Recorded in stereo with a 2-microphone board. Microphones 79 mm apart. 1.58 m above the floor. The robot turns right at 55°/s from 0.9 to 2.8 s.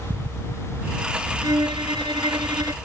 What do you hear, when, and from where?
1.4 s a violin: 125° right; by 2.8 s 50° right